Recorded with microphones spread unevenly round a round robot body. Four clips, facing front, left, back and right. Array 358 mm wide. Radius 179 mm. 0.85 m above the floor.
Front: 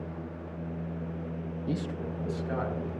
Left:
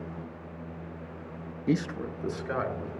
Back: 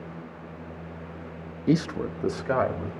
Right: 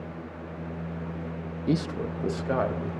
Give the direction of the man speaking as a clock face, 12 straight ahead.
6 o'clock.